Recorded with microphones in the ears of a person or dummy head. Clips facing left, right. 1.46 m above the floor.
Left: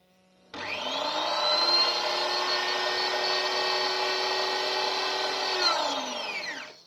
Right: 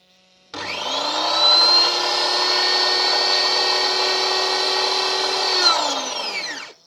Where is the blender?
65° right (ahead or behind), 1.1 m.